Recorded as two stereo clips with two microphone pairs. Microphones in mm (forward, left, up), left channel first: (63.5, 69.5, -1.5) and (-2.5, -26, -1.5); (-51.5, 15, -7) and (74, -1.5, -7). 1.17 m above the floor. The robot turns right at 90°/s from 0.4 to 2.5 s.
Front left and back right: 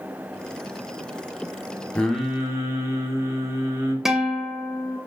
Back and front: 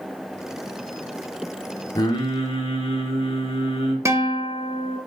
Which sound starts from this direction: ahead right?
A guitar, at 4.0 s.